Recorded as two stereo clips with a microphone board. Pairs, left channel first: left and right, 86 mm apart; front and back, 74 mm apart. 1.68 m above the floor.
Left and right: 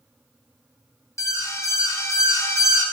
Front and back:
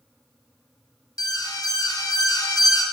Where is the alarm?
35° left, 1.3 m.